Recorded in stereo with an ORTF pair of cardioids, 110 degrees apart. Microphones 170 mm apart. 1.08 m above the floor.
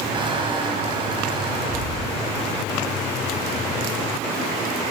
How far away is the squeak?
About 5.5 m.